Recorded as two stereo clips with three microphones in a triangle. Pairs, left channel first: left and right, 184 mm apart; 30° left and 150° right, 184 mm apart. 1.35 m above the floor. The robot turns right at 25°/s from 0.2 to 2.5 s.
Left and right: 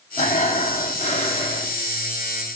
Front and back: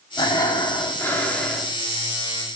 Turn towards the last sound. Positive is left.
turn(degrees=135)